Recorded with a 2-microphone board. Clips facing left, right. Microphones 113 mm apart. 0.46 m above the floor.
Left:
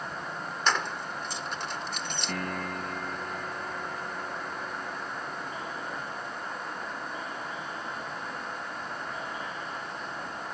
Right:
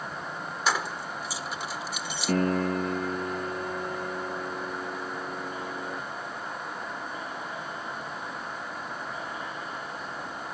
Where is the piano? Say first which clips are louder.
Right 11 dB; 40° right (ahead or behind).